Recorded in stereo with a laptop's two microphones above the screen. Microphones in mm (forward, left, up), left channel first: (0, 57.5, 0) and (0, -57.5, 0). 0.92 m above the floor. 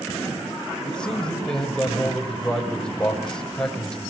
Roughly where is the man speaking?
Centre.